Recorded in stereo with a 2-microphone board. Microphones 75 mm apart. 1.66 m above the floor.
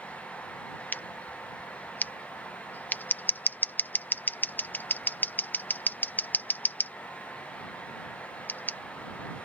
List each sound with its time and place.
0.9 s scissors: 25° left (ahead or behind)